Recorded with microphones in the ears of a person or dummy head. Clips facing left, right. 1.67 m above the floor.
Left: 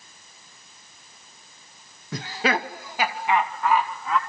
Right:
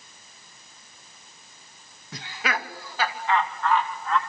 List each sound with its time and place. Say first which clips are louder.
2.1 s laughter: left 6 dB; 45° left (ahead or behind), 0.6 m; by 4.2 s 10° left (ahead or behind), 3 m